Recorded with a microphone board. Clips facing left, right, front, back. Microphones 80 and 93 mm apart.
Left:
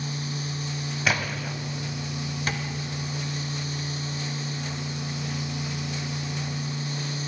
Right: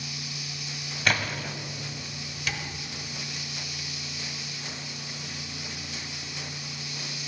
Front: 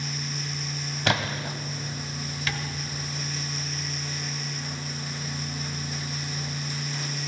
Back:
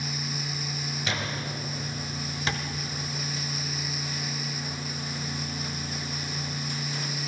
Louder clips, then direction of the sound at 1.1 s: Even, front 7 dB; 5° left.